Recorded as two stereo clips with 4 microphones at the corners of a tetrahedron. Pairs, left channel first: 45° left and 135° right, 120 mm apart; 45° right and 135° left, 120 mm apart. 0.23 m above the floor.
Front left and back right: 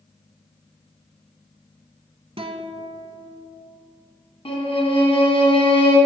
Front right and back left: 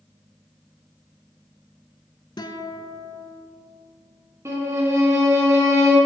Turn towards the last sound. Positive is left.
turn(degrees=70)